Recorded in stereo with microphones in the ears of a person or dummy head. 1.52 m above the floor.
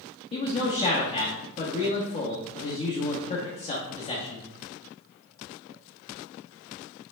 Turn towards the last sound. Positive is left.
turn(degrees=30)  # may be behind; listen again after turning